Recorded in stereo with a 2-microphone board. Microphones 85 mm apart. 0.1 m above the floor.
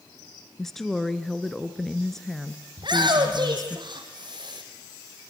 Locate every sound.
0.6 s a woman speaking: 5° left (ahead or behind), 1.1 m
2.8 s a shout: 65° right (ahead or behind), 4 m